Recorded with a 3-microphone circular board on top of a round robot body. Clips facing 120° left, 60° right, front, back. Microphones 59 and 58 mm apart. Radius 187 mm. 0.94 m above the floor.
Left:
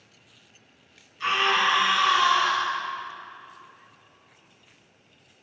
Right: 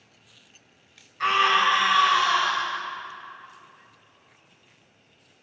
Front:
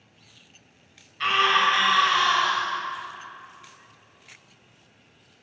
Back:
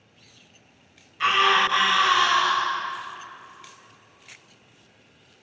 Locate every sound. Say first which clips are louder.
1.2 s a scream: right 3 dB, back 1 dB; 95° right, 5.5 m; by 2.7 s 100° right, 6.5 m